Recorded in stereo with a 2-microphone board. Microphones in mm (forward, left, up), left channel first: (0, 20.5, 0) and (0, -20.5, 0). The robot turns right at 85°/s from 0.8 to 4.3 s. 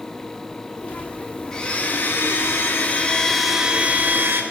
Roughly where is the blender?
Ahead.